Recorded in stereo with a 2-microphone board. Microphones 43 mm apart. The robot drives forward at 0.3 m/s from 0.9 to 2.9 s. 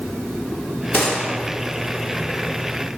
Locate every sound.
0.9 s a gunshot: 55° left (ahead or behind), 2.5 m